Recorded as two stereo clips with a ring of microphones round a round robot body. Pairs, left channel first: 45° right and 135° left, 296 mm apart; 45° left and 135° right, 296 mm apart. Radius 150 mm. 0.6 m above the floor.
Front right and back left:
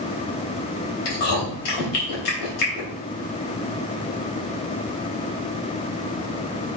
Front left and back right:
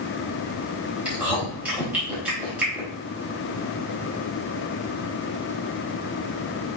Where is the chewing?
50° right, 3.5 m.